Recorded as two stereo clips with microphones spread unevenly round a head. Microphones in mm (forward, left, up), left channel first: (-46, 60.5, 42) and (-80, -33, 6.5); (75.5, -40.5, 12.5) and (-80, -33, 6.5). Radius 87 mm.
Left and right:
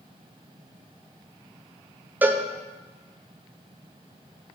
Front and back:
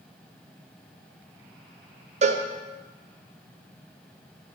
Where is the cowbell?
160° right, 0.8 m.